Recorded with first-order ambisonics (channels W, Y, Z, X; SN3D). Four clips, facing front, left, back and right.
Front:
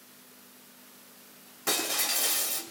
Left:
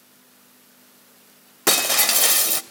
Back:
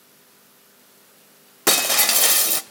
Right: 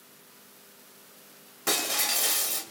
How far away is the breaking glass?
About 0.8 m.